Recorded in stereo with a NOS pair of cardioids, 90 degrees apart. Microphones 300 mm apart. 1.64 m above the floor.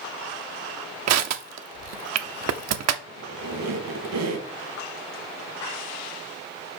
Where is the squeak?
70° right, 1.8 m.